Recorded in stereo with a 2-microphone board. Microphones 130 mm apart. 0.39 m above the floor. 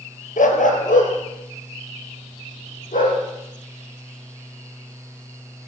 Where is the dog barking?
85° left, 1.7 m.